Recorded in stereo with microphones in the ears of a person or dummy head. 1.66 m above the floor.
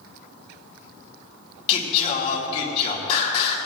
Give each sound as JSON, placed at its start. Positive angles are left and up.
{"t": 1.7, "sound": "singing", "side_deg": 40, "distance_m": 2.0}